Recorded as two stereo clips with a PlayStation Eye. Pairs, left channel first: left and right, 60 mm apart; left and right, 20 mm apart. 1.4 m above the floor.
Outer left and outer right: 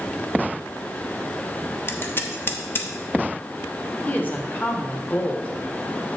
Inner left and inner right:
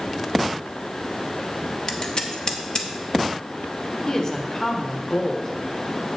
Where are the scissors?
40° left (ahead or behind), 0.9 m.